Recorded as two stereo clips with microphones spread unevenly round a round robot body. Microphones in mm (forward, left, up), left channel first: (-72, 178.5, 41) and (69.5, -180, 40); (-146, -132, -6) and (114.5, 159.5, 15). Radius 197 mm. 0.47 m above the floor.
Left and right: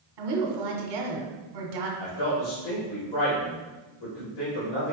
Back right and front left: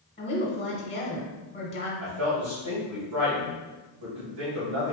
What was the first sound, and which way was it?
A woman speaking, 60° right.